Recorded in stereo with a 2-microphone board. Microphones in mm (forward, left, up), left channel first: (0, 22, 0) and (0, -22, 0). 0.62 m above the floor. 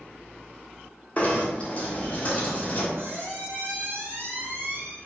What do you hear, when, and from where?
1.2 s knocking: 35° left (ahead or behind), 0.8 m
3.0 s a squeak: 60° right (ahead or behind), 1.5 m